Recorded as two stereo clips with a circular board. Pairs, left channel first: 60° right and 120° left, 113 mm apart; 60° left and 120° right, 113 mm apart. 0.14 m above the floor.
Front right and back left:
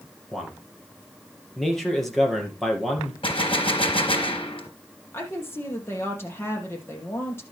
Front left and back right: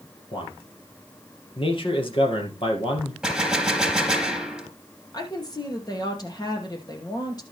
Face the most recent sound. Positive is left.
turn(degrees=10)